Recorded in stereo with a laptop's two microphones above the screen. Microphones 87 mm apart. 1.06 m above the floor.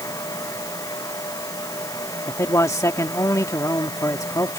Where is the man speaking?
35° left (ahead or behind).